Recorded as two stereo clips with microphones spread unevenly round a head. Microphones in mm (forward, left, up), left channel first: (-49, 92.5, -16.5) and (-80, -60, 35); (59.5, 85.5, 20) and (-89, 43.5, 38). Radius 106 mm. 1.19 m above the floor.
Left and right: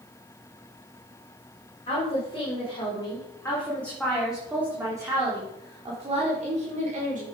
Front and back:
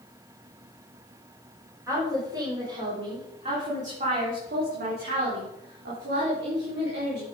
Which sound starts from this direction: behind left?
A woman speaking, at 1.9 s.